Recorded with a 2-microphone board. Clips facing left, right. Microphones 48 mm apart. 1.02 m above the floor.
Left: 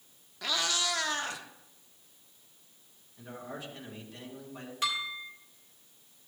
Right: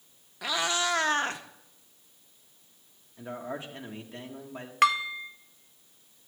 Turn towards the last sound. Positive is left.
turn(degrees=-65)  # may be behind; listen again after turning